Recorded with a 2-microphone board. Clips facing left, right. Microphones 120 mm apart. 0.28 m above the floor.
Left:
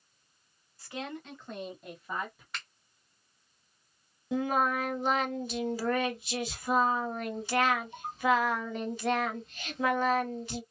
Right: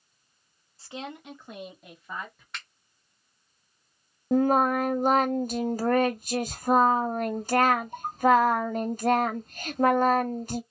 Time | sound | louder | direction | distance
0.8 | a woman speaking | right 1 dB | 30° right (ahead or behind) | 1.1 m
2.5 | a finger snap | right 1 dB | centre (ahead or behind) | 1.6 m
4.3 | singing | right 7 dB | 50° right (ahead or behind) | 0.5 m